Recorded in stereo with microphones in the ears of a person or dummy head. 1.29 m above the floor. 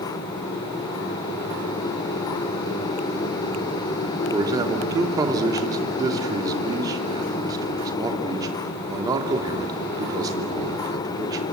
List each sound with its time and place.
4.3 s a man speaking: 25° right (ahead or behind), 3 m